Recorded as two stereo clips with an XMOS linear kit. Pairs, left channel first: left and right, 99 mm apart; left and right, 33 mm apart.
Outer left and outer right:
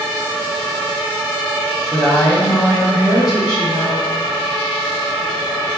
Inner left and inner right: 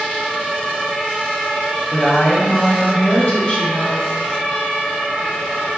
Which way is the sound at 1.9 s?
5° left (ahead or behind).